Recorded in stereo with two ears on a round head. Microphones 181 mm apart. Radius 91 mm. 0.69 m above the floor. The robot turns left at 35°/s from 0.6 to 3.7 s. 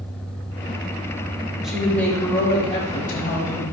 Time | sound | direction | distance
1.6 | a woman speaking | 175° right | 4 m